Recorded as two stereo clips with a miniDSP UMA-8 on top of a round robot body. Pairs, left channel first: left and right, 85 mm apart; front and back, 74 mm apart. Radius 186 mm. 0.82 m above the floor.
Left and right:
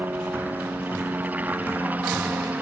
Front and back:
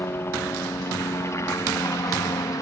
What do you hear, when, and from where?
0.0 s a helicopter: 30° right; by 2.6 s 25° right